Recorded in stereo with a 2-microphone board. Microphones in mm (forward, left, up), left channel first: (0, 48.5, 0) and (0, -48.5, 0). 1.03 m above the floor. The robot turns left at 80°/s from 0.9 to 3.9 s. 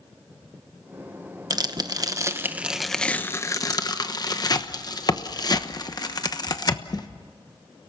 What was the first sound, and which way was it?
Tearing paper, 40° right (ahead or behind).